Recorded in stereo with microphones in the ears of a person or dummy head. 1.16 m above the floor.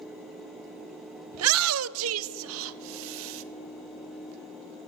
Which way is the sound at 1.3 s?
70° right (ahead or behind).